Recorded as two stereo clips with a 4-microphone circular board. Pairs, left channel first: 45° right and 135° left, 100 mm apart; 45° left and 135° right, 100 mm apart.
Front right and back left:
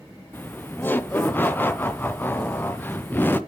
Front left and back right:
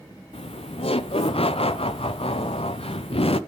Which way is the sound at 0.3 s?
25° left.